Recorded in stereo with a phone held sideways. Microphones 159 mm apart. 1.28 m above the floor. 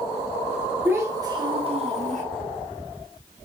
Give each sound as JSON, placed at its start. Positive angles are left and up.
{"t": 0.8, "sound": "a child speaking", "side_deg": -15, "distance_m": 1.4}